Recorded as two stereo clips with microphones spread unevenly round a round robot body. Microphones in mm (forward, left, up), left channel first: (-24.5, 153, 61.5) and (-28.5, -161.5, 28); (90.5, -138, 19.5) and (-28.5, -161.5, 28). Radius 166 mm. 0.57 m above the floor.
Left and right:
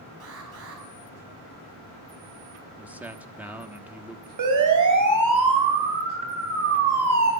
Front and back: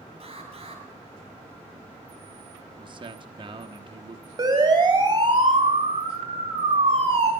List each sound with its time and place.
0.2 s an alarm: 135° right, 7 m
2.8 s a man speaking: 165° right, 1.4 m
4.4 s a siren: 115° right, 4.5 m; by 7.3 s 130° right, 5.5 m